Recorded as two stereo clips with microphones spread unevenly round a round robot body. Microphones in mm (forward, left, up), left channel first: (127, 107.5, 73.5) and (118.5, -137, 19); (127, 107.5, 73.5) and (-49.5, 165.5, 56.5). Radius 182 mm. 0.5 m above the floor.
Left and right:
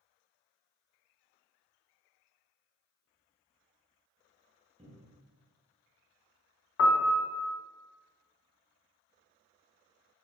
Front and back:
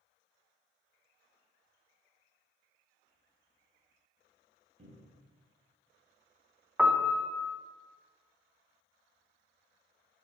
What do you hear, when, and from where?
4.8 s a cupboard door: 150° right, 0.7 m
6.8 s a piano: 85° left, 0.6 m